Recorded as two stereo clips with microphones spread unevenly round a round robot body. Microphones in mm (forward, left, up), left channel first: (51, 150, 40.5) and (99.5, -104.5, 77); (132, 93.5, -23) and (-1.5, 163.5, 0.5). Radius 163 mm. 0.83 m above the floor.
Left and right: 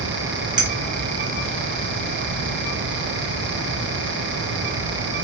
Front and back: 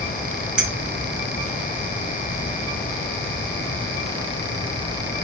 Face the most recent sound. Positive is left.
turn(degrees=-145)